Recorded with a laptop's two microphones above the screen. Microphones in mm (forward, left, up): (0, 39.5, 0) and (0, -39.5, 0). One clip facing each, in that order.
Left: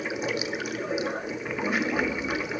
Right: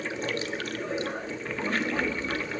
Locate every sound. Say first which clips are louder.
0.0 s running water: left 2 dB; 10° left (ahead or behind), 1.1 m